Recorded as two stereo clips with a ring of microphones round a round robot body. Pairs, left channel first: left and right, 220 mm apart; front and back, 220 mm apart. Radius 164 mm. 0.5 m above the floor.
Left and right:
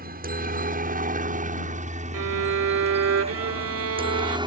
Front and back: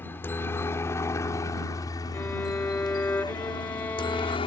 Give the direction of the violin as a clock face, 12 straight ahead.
3 o'clock.